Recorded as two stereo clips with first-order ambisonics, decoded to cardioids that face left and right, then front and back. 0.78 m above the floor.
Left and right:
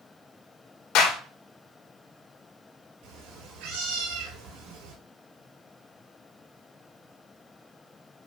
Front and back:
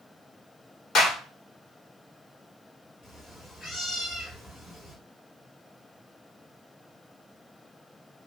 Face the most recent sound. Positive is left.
turn(degrees=-75)